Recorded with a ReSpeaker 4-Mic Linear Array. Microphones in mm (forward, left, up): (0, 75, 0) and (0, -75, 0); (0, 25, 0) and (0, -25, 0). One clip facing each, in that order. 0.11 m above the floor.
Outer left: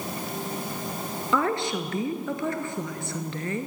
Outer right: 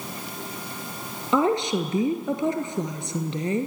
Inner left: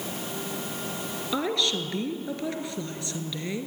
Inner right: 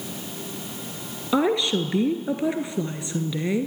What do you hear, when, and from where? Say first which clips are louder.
1.3 s a woman speaking: outer right 4 dB, inner right 7 dB; 20° right (ahead or behind), 1.3 m